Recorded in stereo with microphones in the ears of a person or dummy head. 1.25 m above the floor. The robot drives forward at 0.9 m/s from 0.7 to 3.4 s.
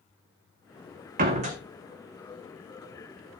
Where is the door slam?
40° right (ahead or behind), 1.8 m; by 1.6 s 35° right (ahead or behind), 2 m.